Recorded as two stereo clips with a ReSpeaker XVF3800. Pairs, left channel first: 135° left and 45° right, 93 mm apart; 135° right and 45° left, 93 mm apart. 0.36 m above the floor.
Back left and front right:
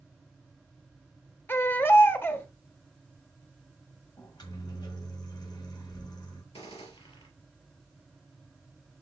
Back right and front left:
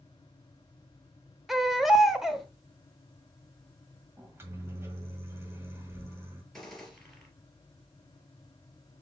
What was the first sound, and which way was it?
A baby crying, 125° left.